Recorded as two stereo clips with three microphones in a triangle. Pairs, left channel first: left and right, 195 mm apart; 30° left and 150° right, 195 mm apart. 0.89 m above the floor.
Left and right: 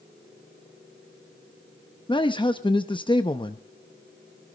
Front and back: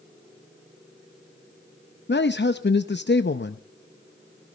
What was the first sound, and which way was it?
A man speaking, 30° left.